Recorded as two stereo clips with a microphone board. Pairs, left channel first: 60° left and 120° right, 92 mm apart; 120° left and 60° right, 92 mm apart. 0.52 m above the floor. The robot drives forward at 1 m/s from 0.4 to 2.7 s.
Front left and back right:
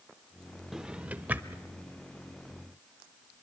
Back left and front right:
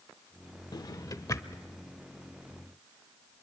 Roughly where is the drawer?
Behind left.